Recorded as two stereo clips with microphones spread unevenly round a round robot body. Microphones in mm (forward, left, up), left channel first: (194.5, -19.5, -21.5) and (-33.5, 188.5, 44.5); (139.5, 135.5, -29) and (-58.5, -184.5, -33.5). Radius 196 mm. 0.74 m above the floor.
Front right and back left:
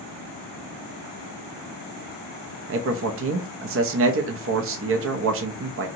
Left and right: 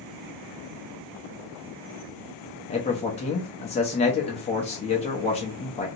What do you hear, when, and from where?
2.7 s a man speaking: 115° left, 0.5 m